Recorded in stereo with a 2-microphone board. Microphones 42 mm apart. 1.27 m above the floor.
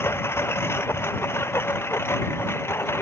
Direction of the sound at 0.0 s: 80° left.